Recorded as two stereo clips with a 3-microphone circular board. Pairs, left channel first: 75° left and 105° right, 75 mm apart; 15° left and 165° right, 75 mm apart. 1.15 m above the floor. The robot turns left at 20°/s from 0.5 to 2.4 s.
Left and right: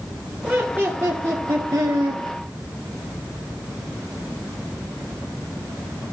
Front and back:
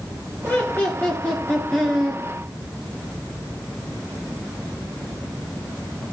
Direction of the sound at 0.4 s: 40° right.